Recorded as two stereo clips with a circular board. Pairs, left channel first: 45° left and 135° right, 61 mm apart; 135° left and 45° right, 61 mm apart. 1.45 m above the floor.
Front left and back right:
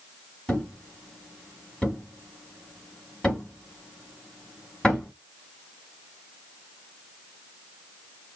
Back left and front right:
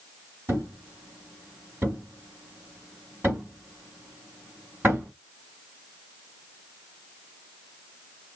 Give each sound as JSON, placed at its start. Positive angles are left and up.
{"t": 0.5, "sound": "a thud", "azimuth_deg": -25, "distance_m": 1.7}